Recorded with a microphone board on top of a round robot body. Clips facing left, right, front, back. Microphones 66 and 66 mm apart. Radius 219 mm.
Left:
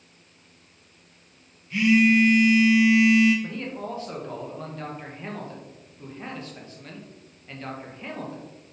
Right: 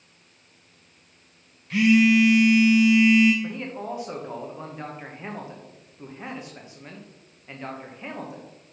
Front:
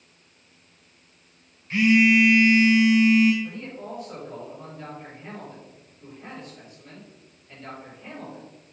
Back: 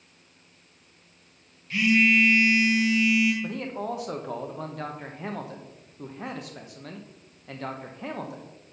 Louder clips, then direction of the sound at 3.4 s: Right 1 dB, back 4 dB; 165° right.